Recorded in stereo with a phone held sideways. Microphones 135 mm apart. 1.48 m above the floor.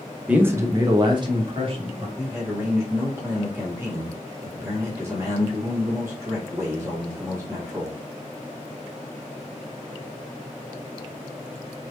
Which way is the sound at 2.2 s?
20° right (ahead or behind).